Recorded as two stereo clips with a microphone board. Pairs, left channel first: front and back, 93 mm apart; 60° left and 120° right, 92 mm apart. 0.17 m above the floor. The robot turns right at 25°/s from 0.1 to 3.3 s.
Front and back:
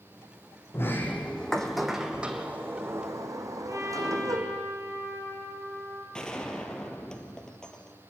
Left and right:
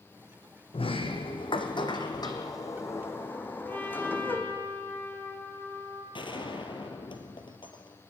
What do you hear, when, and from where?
0.7 s a sliding door: 65° left, 2 m; by 4.6 s 130° left, 2 m
3.7 s a trumpet: 125° left, 4.5 m
6.1 s a gunshot: 80° left, 2 m